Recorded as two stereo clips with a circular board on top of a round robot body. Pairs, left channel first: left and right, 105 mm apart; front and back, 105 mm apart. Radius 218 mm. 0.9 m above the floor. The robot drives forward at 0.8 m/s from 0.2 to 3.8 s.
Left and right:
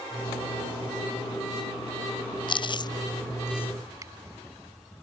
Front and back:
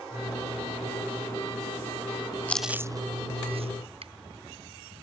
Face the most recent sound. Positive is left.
turn(degrees=-150)